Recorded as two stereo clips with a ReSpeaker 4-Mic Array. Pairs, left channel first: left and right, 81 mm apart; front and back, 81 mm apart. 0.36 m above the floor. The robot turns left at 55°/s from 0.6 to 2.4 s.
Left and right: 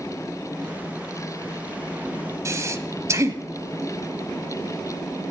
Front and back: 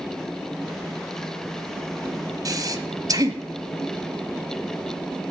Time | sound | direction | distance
2.5 | breathing | 140° right | 0.8 m